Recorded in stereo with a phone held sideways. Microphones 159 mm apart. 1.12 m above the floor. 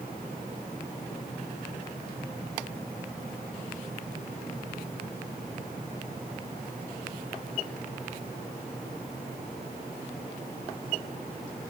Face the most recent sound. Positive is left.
No sound to turn to.